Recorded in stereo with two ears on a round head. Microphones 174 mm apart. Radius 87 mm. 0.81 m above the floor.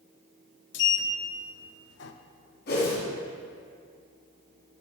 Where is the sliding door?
60° left (ahead or behind), 0.5 m.